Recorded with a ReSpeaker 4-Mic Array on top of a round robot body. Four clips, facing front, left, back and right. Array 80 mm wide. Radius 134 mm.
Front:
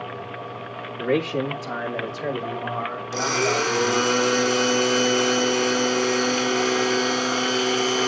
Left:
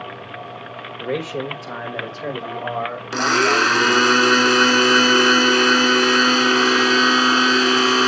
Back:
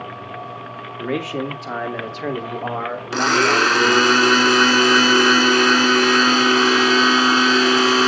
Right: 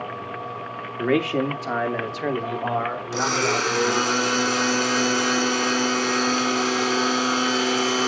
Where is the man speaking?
90° right, 2 m; by 4.1 s 150° right, 4.5 m.